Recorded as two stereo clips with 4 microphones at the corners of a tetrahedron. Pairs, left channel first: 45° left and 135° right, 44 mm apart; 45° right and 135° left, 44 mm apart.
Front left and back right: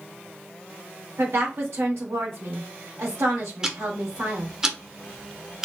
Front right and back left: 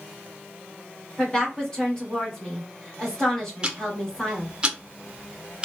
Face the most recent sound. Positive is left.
turn(degrees=170)